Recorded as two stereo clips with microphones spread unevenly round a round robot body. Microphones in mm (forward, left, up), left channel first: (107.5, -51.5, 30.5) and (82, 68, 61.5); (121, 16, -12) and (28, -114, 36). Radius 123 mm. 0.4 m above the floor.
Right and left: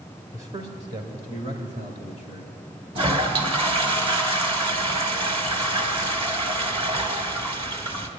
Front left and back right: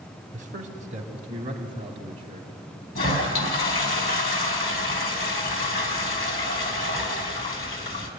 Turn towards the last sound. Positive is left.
turn(degrees=55)